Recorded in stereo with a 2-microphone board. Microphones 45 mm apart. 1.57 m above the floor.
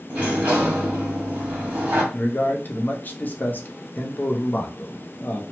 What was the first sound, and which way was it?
A sliding door, 35° right (ahead or behind).